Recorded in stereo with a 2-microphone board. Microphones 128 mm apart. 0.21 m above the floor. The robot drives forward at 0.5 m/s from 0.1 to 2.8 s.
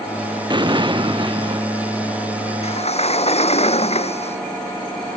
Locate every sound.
0.5 s an explosion: 35° right (ahead or behind)
2.6 s a sliding door: 50° left (ahead or behind)